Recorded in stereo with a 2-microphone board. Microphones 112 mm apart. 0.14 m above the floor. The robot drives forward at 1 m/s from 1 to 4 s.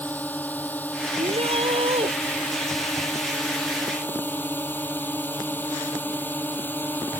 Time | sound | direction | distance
0.0 | a drone | 15° left (ahead or behind) | ?
1.2 | a shout | 65° right (ahead or behind) | ?